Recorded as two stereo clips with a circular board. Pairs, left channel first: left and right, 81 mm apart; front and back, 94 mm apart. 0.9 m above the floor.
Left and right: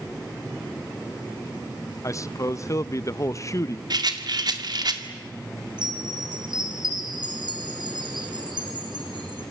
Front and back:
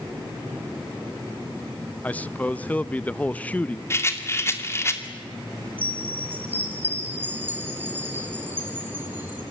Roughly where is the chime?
Right.